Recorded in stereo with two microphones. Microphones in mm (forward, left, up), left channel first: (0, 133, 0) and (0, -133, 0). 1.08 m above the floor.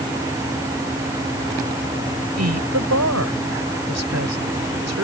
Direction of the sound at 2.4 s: 80° right.